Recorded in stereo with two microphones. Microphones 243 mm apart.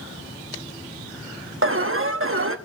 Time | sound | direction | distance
1.6 | an alarm | 60° right (ahead or behind) | 1.1 m